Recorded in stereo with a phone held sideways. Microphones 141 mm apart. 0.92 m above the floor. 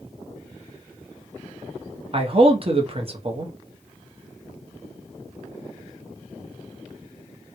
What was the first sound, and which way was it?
A man speaking, 40° right (ahead or behind).